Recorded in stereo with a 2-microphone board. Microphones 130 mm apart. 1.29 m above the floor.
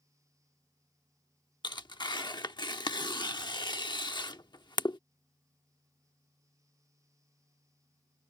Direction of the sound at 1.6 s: 35° left (ahead or behind).